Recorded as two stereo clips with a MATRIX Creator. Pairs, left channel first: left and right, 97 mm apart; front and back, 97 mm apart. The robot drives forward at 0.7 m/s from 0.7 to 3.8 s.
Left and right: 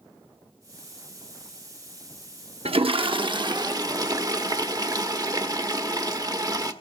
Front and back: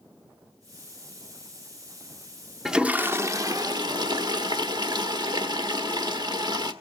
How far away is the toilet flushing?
About 0.8 m.